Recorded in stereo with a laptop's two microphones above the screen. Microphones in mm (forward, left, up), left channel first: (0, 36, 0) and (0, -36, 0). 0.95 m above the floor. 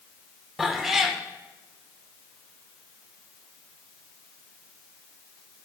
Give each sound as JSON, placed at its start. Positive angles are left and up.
{"t": 0.6, "sound": "a cat meowing", "side_deg": 0, "distance_m": 0.8}